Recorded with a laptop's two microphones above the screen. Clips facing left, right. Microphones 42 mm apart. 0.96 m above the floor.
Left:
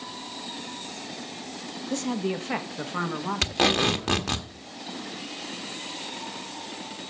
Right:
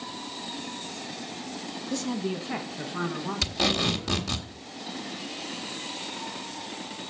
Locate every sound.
1.9 s a woman speaking: 40° left (ahead or behind), 1.1 m; by 4.4 s 70° left (ahead or behind), 2.5 m
3.4 s tape being pulled: 45° left (ahead or behind), 1.4 m